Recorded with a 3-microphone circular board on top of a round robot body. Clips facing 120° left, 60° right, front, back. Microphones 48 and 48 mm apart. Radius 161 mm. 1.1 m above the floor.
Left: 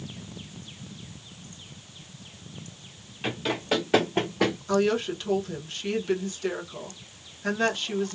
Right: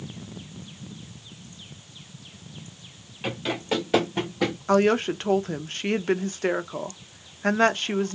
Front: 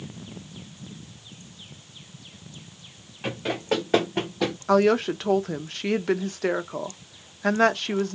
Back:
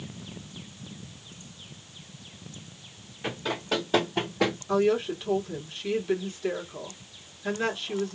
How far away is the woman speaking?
About 0.5 m.